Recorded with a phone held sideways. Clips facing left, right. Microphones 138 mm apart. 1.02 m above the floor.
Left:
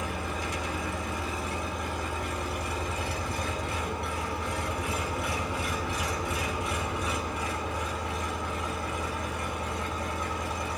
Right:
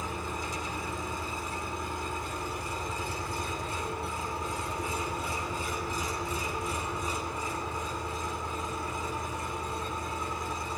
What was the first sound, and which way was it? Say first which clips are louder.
An engine running: left 2 dB; 75° left (ahead or behind).